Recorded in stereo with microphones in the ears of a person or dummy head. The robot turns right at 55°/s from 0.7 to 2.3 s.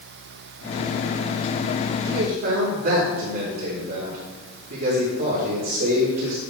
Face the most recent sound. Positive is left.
turn(degrees=-60)  # may be behind; listen again after turning